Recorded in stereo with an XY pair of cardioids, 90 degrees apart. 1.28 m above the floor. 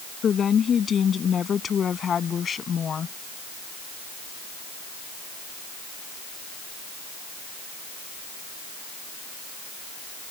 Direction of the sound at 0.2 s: 55° left.